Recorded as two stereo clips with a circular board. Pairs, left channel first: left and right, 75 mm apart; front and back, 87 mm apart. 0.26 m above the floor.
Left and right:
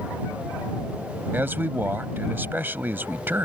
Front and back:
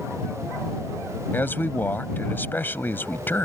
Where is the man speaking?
50° right.